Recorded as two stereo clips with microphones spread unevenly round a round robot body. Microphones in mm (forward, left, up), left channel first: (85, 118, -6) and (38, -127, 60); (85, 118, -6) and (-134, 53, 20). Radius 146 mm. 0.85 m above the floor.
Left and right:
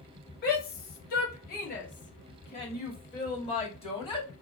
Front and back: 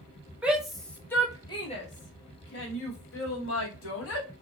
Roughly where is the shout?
Left.